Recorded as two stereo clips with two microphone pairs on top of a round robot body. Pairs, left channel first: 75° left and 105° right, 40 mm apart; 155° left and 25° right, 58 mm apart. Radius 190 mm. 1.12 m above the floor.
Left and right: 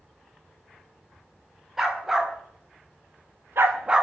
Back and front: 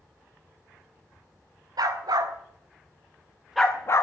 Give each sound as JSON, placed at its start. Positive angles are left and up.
{"t": 1.8, "sound": "a dog barking", "azimuth_deg": -20, "distance_m": 2.0}